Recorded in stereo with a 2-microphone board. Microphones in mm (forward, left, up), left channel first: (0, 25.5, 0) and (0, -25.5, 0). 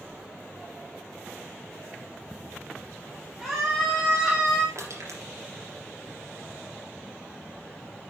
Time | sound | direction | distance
3.4 | a scream | 5° right (ahead or behind) | 3.5 m
4.8 | crushing | 70° right (ahead or behind) | 3.5 m